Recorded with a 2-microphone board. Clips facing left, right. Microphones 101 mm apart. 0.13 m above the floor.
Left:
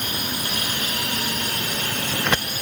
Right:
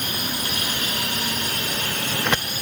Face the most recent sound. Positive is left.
No sound to turn to.